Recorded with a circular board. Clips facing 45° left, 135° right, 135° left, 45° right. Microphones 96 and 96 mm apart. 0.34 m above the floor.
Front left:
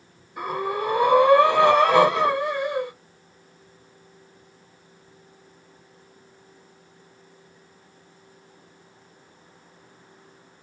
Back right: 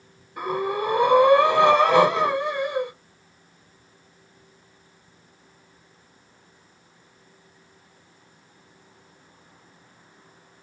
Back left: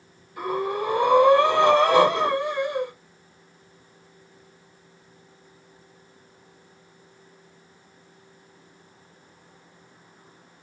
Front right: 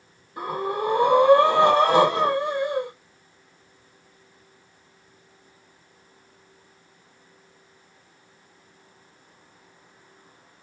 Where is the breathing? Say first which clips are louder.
Back right 1 dB, back left 1 dB; 40° right, 1.6 m.